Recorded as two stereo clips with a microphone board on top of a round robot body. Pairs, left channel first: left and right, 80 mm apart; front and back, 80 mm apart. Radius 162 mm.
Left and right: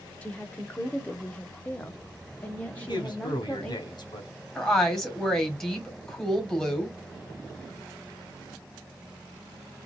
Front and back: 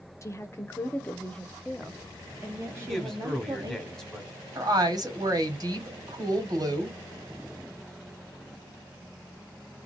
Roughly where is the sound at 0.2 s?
Ahead left.